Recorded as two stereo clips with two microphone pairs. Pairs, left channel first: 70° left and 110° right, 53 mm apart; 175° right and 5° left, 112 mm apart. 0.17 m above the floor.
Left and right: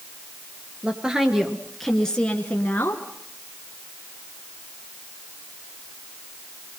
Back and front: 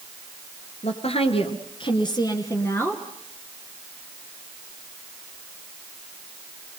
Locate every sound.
0.8 s a woman speaking: 175° right, 2.5 m; by 3.0 s 110° left, 2.5 m